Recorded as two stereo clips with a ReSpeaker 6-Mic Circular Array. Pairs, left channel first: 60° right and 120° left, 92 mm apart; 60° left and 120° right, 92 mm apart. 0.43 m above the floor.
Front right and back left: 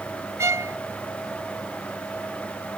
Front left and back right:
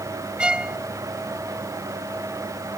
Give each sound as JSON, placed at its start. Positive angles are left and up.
{"t": 0.4, "sound": "a violin", "azimuth_deg": 165}